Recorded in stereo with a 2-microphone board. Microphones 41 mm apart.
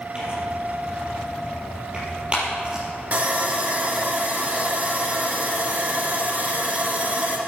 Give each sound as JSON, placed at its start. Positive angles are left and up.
{"t": 0.1, "sound": "tearing paper", "side_deg": -25, "distance_m": 5.5}
{"t": 3.1, "sound": "sawing", "side_deg": -45, "distance_m": 1.7}